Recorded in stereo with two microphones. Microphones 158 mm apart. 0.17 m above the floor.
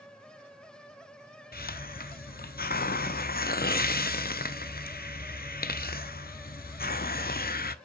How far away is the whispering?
I don't hear whispering.